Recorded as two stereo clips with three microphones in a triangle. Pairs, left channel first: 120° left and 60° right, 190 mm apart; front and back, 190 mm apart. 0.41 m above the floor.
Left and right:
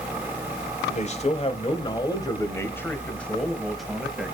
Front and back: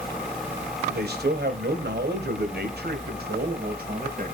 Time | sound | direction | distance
0.9 | a man speaking | 165° left | 1.7 m